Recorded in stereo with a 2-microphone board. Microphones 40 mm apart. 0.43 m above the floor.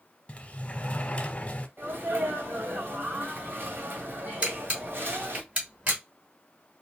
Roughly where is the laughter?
No laughter in this recording.